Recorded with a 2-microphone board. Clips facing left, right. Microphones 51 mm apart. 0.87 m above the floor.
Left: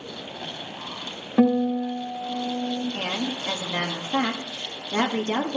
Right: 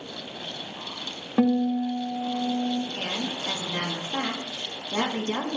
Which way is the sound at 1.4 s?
Centre (ahead or behind).